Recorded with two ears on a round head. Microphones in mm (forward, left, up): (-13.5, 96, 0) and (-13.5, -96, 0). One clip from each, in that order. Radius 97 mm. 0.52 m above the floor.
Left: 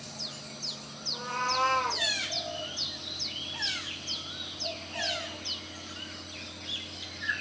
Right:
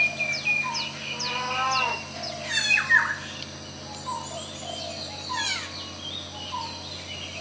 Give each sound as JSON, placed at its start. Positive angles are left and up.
{"t": 1.1, "sound": "a cat meowing", "side_deg": 50, "distance_m": 3.5}